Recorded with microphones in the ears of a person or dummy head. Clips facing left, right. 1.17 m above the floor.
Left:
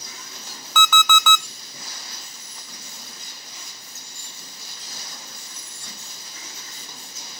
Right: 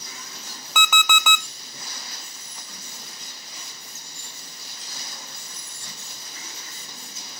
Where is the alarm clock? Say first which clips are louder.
Left 4 dB; 10° right (ahead or behind), 0.7 m.